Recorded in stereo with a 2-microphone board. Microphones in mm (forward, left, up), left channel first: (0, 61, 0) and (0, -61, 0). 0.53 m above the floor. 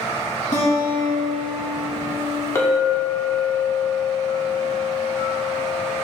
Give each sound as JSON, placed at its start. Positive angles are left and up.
{"t": 0.5, "sound": "a guitar", "side_deg": 80, "distance_m": 1.5}
{"t": 2.5, "sound": "a clink", "side_deg": 25, "distance_m": 0.7}